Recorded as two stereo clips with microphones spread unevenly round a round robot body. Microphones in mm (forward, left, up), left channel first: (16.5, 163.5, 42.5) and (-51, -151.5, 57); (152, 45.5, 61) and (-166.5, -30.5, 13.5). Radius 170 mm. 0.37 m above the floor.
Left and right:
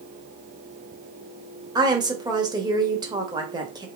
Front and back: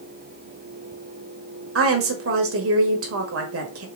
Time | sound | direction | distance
1.8 | a woman speaking | straight behind | 1.4 m